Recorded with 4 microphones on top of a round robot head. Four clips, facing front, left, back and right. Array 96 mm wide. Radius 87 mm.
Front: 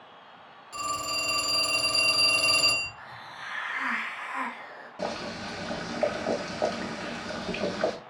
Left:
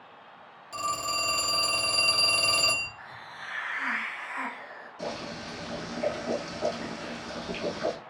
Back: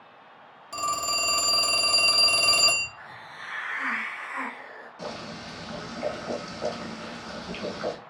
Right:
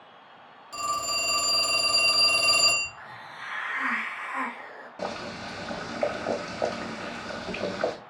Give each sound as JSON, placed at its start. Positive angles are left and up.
{"t": 0.7, "sound": "a phone ringing", "azimuth_deg": 180, "distance_m": 0.6}
{"t": 3.0, "sound": "a hiss", "azimuth_deg": -120, "distance_m": 0.7}
{"t": 5.0, "sound": "boiling", "azimuth_deg": -50, "distance_m": 0.9}